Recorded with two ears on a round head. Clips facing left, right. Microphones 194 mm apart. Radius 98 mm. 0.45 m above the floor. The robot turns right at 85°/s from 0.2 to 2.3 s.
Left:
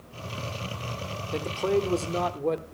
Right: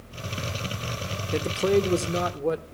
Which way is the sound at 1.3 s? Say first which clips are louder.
Right 3 dB; 25° right (ahead or behind).